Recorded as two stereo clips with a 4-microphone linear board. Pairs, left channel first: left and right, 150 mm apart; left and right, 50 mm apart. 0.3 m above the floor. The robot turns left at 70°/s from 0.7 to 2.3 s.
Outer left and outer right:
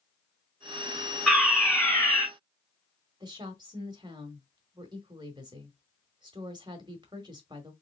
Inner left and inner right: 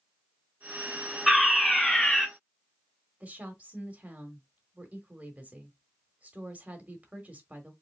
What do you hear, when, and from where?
1.3 s a fire alarm: 5° left (ahead or behind), 2.5 m; by 2.2 s 30° left (ahead or behind), 2.5 m
3.2 s a woman speaking: 30° right (ahead or behind), 1.1 m